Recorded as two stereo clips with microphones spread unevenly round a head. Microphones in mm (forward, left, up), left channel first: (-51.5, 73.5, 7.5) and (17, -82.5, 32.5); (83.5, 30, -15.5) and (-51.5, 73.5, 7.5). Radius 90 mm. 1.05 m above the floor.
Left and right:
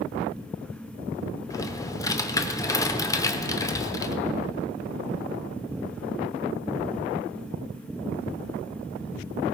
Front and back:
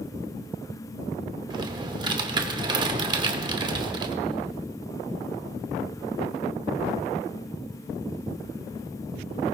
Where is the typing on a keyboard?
175° right, 0.8 m.